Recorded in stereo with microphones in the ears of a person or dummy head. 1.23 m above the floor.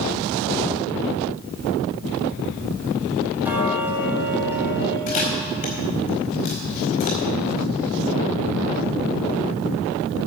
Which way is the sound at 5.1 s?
40° left (ahead or behind).